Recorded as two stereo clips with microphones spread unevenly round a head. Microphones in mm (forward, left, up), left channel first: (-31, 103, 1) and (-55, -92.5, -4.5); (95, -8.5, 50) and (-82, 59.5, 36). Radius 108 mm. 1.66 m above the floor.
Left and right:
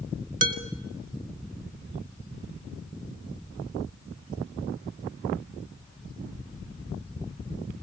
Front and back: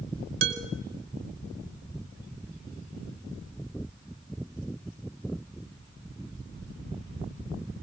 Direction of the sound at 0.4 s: 140° right.